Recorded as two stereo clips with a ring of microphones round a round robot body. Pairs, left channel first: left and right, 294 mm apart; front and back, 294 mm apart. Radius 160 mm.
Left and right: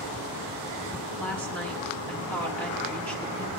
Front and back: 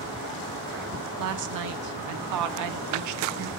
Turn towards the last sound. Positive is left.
turn(degrees=175)